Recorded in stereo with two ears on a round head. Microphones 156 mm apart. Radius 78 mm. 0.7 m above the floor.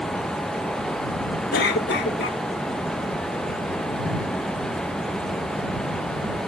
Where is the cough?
65° left (ahead or behind).